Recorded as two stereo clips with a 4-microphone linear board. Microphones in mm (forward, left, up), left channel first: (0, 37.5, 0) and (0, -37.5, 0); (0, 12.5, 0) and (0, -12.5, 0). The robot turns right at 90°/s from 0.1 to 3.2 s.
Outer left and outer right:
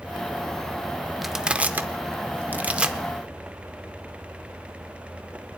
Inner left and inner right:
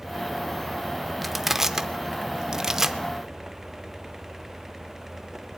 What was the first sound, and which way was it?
Crushing, centre (ahead or behind).